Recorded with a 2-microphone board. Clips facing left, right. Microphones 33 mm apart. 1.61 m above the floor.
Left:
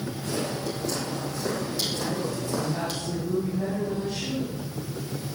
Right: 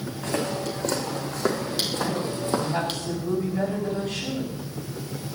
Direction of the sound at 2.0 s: 85° right.